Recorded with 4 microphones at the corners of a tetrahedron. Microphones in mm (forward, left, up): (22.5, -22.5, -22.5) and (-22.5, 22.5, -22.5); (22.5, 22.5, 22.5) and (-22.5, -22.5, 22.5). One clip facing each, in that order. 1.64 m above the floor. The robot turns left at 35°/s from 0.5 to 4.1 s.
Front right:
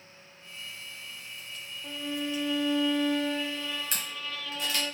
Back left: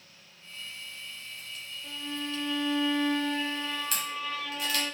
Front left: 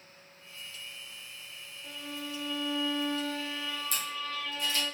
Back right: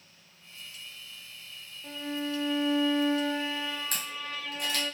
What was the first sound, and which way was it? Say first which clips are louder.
A violin: front right 3 dB, back right 7 dB; 100° right.